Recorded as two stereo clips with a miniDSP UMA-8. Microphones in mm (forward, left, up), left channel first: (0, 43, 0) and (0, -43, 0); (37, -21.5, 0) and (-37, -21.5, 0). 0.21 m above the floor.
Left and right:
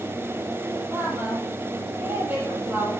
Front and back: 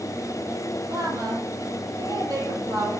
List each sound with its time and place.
0.9 s a woman speaking: 155° right, 7.5 m